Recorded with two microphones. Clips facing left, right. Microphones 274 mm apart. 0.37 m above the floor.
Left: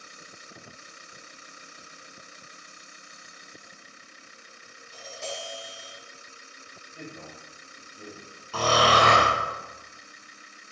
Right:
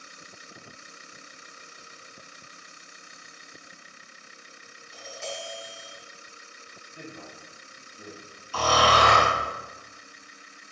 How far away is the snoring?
About 1.4 m.